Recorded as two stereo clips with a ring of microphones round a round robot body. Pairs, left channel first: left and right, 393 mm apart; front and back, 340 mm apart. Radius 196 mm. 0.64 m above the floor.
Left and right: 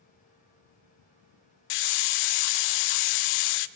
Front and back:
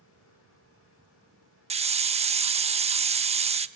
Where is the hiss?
105° left, 0.7 m.